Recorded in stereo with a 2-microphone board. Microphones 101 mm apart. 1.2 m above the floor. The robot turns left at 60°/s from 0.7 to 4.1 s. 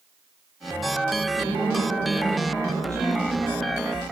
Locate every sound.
1.4 s a woman speaking: 50° right, 2.5 m; by 3.5 s straight behind, 2.5 m